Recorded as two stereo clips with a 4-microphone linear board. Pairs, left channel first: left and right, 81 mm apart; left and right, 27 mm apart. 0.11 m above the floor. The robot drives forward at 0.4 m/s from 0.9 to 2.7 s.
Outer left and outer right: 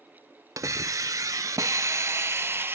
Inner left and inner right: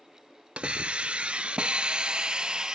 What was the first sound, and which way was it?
A hiss, 40° right (ahead or behind).